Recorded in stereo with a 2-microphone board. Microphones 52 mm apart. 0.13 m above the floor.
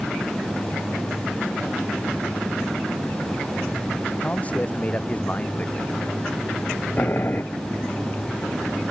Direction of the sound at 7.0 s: 40° left (ahead or behind).